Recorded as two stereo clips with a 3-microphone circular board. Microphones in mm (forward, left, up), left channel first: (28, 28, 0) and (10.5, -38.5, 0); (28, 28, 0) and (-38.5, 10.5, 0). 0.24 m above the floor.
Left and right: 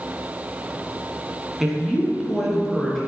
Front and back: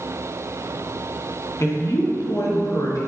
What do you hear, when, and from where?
1.6 s a woman speaking: 20° right, 2.5 m; by 3.0 s 10° right, 4 m